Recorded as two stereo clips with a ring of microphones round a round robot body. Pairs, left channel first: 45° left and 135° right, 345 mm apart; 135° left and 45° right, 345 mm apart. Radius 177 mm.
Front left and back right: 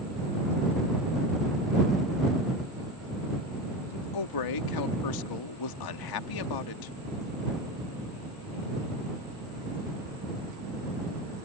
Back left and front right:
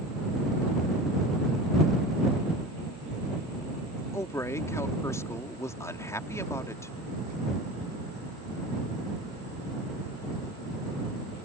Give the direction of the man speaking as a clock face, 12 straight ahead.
10 o'clock.